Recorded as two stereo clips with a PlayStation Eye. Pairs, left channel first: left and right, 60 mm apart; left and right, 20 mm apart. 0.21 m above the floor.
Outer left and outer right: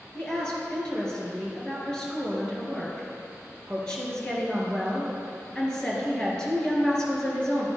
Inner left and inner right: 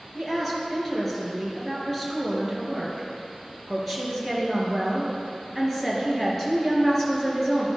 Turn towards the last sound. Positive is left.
turn(degrees=10)  # may be behind; listen again after turning